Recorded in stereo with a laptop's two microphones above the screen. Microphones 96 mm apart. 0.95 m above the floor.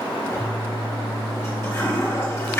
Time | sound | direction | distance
0.3 | a toilet flushing | 25° left (ahead or behind) | 3.5 m